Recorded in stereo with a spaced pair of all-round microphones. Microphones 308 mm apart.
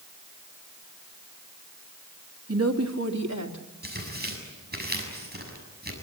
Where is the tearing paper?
30° right (ahead or behind), 6.5 m.